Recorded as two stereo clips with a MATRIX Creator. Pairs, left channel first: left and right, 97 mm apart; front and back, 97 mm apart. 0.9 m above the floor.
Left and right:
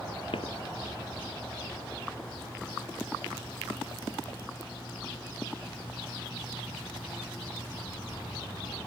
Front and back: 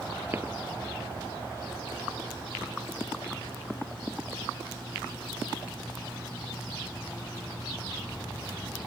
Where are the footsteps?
115° left.